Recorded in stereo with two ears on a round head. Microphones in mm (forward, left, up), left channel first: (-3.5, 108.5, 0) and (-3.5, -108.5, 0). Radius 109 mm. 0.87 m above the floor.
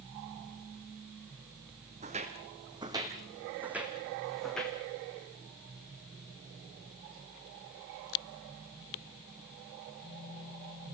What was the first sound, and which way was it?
Footsteps, 30° right (ahead or behind).